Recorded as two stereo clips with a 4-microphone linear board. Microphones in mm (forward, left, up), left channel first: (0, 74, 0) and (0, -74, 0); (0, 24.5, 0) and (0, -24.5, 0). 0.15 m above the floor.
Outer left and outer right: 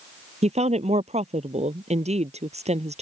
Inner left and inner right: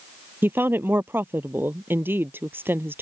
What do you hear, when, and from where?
0.4 s a woman speaking: 50° right (ahead or behind)